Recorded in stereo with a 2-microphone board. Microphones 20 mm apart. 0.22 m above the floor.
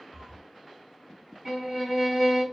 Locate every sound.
0.1 s a cat meowing: 15° right (ahead or behind), 0.5 m
1.4 s a violin: 25° right (ahead or behind), 1.1 m